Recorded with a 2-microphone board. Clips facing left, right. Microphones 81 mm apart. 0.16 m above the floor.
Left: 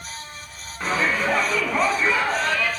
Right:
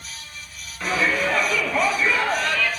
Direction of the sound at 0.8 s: 20° left (ahead or behind).